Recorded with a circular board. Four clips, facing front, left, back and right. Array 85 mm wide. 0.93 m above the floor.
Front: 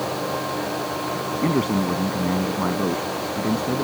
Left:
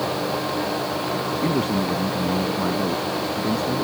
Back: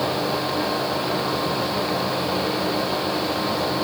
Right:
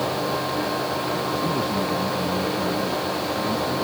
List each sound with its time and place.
1.4 s a man speaking: 25° left